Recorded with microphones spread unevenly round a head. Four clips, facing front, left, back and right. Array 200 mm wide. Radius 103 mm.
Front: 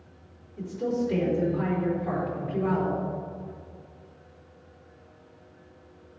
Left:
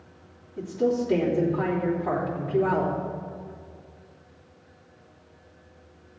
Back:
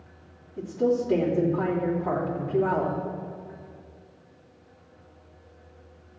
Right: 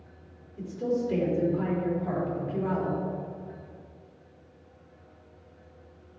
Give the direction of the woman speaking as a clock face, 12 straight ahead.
7 o'clock.